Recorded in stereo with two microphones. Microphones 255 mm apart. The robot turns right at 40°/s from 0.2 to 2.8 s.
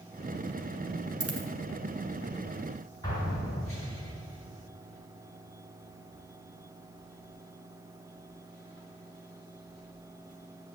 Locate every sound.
1.2 s a dropped coin: 70° right (ahead or behind), 1.4 m; by 1.5 s 60° right (ahead or behind), 1.4 m
3.0 s an explosion: 15° left (ahead or behind), 3.5 m